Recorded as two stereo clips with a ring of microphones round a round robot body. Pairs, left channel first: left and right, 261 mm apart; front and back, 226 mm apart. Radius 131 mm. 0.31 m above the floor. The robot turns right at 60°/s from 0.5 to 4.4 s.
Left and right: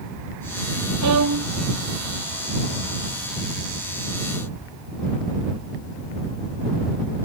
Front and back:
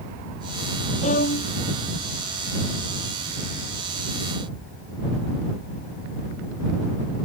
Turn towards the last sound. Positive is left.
turn(degrees=135)